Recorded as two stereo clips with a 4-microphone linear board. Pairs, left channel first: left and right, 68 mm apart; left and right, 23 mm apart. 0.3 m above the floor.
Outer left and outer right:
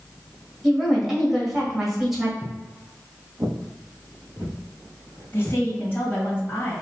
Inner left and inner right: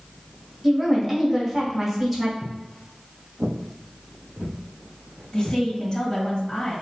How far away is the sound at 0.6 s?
About 1.5 m.